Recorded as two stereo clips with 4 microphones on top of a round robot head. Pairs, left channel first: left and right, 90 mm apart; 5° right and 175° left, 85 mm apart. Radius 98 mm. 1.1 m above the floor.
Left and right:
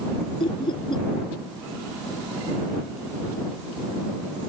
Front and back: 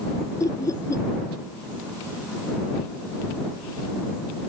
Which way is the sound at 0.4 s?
50° left.